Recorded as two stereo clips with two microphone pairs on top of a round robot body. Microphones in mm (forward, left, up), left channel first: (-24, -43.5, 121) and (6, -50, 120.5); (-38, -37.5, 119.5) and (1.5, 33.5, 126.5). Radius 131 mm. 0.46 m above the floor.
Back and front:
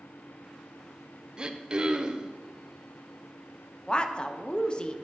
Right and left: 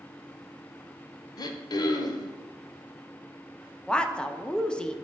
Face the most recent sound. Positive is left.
turn(degrees=-175)